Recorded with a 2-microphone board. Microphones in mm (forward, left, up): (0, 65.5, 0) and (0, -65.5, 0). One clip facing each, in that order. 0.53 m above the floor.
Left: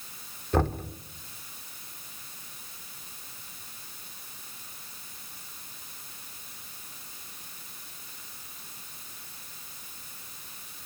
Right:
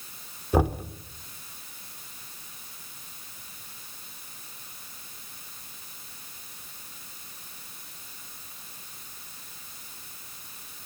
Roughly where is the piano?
I don't hear a piano.